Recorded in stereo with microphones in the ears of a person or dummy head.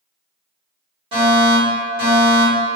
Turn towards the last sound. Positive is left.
turn(degrees=-35)  # may be behind; listen again after turning